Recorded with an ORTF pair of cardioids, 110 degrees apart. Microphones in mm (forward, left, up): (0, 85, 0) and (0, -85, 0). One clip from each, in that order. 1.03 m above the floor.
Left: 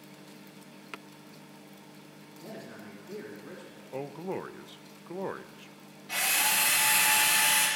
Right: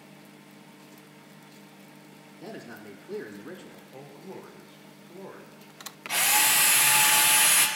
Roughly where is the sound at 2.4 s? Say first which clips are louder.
Right 3 dB; ahead right.